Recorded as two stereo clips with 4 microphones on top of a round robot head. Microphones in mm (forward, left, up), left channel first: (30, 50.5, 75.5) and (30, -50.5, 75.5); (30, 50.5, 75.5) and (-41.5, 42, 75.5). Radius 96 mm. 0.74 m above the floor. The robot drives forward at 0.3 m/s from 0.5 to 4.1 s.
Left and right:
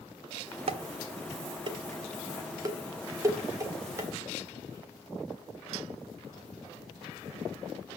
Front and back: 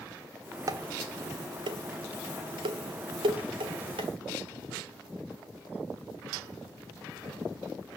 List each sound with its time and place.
0.7 s dishes clattering: 125° right, 0.6 m; by 4.1 s 160° right, 1.5 m